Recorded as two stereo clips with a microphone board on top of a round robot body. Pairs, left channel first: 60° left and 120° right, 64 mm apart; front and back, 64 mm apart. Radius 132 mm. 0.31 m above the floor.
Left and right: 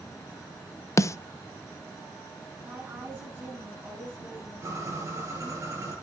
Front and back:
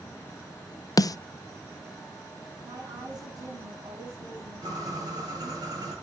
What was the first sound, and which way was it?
A snare drum, 20° left.